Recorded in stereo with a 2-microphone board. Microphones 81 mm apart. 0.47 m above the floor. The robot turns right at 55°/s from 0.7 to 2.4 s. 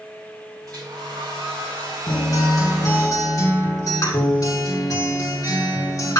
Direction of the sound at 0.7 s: 130° right.